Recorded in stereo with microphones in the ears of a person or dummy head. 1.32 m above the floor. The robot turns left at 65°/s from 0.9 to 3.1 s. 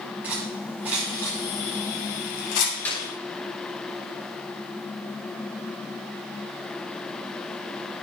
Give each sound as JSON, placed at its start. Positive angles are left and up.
{"t": 0.2, "sound": "cutlery clinking", "side_deg": -10, "distance_m": 6.5}
{"t": 2.9, "sound": "a clap", "side_deg": 10, "distance_m": 6.0}